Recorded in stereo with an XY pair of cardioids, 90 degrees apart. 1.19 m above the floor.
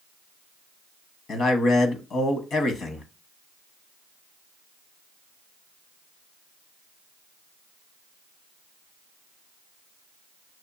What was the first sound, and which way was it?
A man speaking, 65° left.